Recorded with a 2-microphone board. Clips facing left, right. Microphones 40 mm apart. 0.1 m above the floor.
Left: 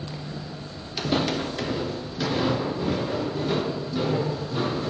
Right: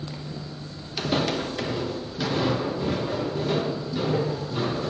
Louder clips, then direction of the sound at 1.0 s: Even; centre (ahead or behind).